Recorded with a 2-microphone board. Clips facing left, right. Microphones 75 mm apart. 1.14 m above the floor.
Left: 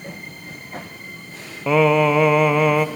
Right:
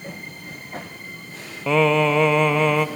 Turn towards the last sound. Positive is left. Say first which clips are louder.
# left 2 dB
turn(degrees=10)  # may be behind; listen again after turning